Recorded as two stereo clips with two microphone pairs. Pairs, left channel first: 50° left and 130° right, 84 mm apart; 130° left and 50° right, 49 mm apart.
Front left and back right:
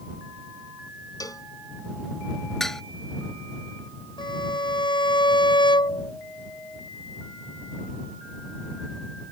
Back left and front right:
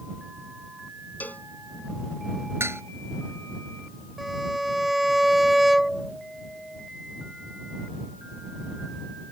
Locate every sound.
1.2 s a cowbell: 85° left
2.6 s dishes clattering: 35° right
4.2 s a violin: 35° left